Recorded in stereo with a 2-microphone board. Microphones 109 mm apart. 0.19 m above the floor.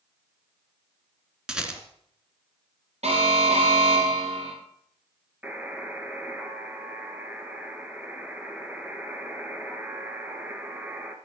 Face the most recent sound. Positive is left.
turn(degrees=-15)  # may be behind; listen again after turning